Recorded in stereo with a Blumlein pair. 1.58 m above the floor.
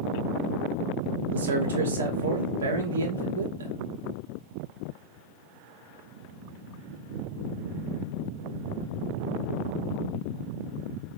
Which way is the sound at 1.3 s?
65° right.